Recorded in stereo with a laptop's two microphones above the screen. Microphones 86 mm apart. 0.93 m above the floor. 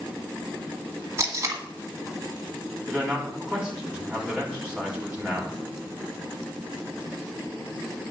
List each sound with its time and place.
1.2 s tape being pulled: 35° right (ahead or behind), 1.4 m
2.9 s a man speaking: 10° right (ahead or behind), 3 m